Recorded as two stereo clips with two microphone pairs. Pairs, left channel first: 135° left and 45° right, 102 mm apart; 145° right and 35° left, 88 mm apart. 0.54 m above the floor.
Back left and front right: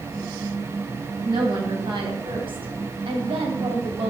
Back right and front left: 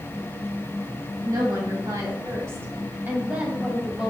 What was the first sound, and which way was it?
A woman speaking, 10° right.